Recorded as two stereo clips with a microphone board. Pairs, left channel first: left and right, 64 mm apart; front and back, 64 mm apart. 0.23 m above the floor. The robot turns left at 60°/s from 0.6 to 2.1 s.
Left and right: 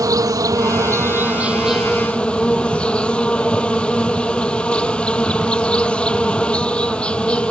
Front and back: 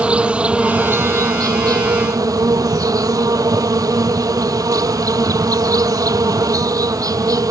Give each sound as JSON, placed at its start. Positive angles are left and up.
{"t": 0.0, "sound": "an insect", "azimuth_deg": -105}